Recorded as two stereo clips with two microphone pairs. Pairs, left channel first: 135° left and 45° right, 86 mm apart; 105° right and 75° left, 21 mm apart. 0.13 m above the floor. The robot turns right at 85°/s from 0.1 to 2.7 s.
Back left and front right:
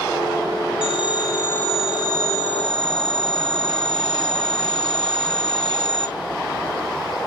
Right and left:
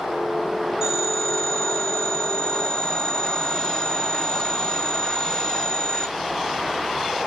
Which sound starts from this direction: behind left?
A phone ringing, at 0.8 s.